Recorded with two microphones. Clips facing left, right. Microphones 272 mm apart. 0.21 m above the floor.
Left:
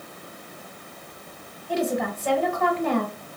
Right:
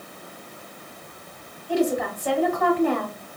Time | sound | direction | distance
1.7 | a woman speaking | 5° left (ahead or behind) | 1.1 m